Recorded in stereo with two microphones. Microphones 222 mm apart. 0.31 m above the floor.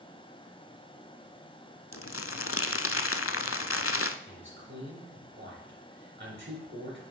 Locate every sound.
1.9 s crumpling: 80° left, 0.5 m
4.3 s a man speaking: 50° right (ahead or behind), 3.5 m